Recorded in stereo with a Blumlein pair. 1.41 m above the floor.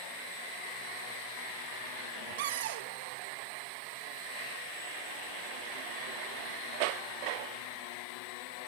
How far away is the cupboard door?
About 0.5 m.